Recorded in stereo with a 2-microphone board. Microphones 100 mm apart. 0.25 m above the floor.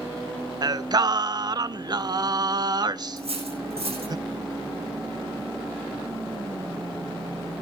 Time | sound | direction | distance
0.6 | singing | 45° right (ahead or behind) | 0.6 m
3.2 | cutlery clinking | 85° right | 9.5 m